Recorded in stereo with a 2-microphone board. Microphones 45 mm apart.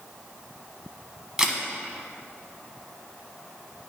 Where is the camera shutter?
15° right (ahead or behind), 1.0 m.